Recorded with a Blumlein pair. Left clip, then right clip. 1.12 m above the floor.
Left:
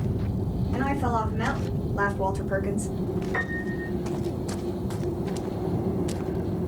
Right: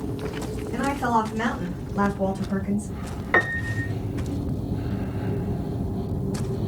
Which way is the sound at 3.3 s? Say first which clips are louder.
Right 11 dB; 45° right.